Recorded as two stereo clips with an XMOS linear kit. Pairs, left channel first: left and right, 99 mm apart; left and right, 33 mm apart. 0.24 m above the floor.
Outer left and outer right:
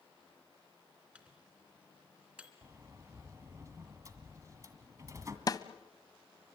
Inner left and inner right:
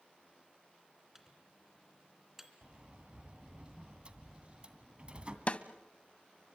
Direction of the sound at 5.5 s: 40° left (ahead or behind).